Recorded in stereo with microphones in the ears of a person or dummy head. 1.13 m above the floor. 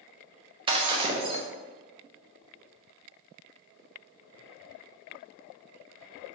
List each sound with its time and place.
0.7 s breaking glass: 25° right (ahead or behind), 0.5 m